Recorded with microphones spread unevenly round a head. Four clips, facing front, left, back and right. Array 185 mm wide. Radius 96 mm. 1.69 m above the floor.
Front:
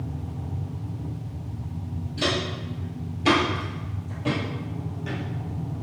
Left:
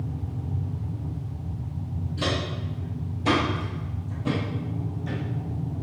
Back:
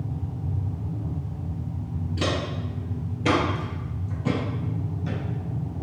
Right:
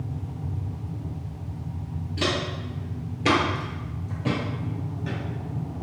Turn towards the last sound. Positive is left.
turn(degrees=-40)